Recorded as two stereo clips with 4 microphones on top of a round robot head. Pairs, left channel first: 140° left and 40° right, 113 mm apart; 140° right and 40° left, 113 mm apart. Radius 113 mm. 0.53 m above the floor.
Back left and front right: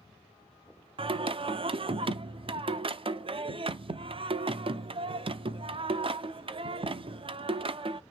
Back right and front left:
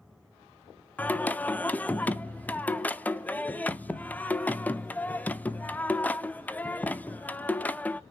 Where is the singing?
65° right, 0.7 m.